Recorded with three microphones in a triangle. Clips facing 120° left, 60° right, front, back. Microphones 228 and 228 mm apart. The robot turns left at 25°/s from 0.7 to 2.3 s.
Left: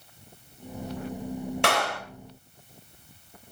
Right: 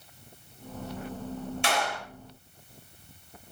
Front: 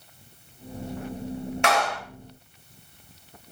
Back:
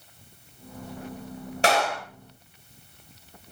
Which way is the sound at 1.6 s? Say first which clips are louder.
Left 3 dB, back 2 dB; 130° left.